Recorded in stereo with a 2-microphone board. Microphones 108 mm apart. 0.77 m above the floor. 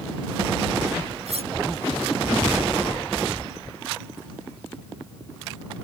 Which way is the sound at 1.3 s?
85° right.